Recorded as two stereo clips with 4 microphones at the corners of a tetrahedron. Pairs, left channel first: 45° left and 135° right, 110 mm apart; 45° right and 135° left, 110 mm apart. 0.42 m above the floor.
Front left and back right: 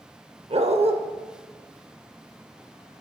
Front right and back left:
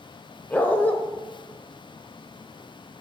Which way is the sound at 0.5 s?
120° right.